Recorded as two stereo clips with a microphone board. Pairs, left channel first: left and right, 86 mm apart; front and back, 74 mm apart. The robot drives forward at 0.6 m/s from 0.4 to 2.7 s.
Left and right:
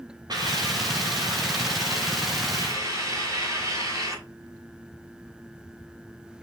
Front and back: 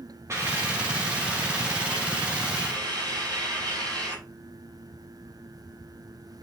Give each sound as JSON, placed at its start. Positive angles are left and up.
{"t": 0.3, "sound": "a hiss", "azimuth_deg": -130, "distance_m": 3.5}